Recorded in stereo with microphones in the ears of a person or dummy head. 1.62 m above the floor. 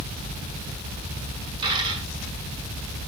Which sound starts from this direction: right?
A dropped coin, at 1.6 s.